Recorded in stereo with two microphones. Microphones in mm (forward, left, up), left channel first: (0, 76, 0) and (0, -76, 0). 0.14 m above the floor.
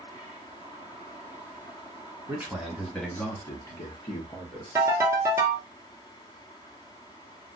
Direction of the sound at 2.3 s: 20° right (ahead or behind).